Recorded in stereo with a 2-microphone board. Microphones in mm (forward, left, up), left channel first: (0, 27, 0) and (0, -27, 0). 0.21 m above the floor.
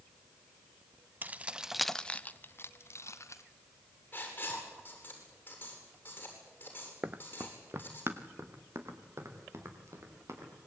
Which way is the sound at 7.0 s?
25° right (ahead or behind).